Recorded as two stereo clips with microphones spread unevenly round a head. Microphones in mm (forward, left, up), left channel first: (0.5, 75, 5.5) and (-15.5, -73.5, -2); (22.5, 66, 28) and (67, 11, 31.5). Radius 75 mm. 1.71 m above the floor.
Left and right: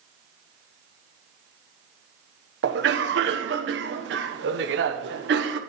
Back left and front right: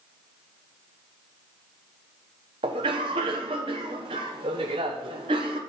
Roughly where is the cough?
Right.